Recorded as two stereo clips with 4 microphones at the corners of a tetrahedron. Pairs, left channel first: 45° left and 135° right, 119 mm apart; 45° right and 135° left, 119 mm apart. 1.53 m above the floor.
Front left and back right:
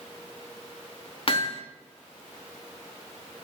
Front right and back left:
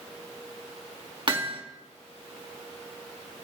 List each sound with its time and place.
1.3 s hammering: 85° left, 3 m